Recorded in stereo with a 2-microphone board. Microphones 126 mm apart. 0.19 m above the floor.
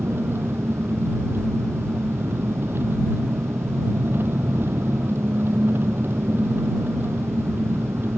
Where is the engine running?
15° right (ahead or behind).